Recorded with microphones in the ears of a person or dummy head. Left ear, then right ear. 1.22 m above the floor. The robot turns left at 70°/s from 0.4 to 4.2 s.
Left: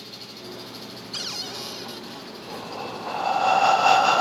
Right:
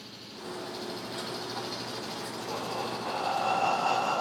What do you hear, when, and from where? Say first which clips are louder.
0.0 s an engine running: left 4 dB; 30° left, 4 m; by 4.2 s 125° left, 4 m
1.1 s a cupboard door: left 8 dB; 60° left, 0.9 m; by 2.3 s 15° right, 0.9 m
2.5 s breathing: left 1 dB; 150° right, 0.5 m; by 4.2 s 90° left, 0.5 m